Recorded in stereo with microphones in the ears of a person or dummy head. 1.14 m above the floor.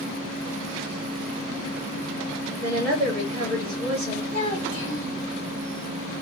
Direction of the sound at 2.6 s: 45° right (ahead or behind).